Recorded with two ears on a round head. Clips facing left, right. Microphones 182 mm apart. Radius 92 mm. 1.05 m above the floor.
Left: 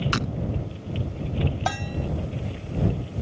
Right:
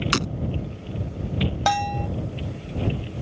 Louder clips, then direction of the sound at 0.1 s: Right 3 dB; 60° right (ahead or behind).